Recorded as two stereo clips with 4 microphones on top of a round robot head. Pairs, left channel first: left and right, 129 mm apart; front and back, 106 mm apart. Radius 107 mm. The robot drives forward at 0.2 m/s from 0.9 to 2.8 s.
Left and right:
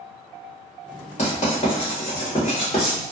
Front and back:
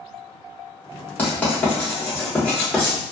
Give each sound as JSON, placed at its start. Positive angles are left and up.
{"t": 1.2, "sound": "writing", "azimuth_deg": 70, "distance_m": 1.9}